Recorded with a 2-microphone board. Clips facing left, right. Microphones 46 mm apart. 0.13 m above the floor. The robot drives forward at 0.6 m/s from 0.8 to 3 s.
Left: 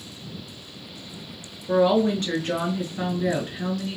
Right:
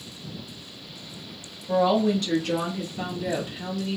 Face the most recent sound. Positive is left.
turn(degrees=40)  # may be behind; listen again after turning